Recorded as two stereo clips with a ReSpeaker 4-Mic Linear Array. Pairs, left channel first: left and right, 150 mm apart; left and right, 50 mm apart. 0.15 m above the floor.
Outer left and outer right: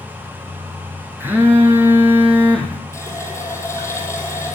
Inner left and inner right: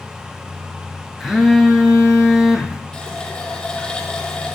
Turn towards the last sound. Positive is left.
turn(degrees=20)  # may be behind; listen again after turning